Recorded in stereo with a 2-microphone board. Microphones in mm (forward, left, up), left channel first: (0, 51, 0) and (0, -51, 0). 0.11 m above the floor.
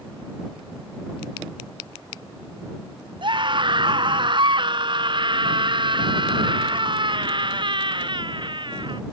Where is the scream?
50° right (ahead or behind).